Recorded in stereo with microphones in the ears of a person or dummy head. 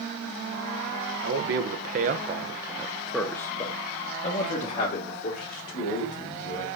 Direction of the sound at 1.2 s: 65° right (ahead or behind).